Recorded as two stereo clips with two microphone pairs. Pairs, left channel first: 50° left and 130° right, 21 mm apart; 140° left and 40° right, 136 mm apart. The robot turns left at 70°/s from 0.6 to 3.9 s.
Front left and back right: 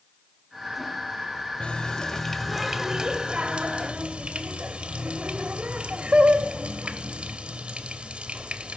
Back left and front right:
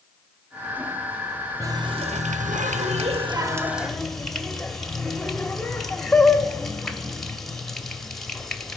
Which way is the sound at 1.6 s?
25° left.